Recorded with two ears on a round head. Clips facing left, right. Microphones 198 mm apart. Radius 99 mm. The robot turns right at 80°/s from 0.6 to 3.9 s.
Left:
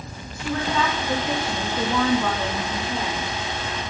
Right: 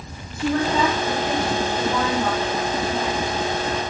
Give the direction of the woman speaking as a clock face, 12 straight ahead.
1 o'clock.